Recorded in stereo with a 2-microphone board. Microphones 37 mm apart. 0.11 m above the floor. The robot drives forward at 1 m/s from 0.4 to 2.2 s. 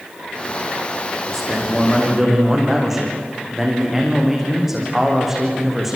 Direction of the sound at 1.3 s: 5° right (ahead or behind).